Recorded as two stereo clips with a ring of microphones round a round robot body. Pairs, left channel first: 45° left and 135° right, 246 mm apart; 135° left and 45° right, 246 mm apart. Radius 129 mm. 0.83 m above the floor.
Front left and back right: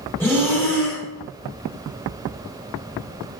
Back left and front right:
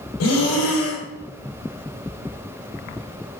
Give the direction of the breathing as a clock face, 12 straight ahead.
8 o'clock.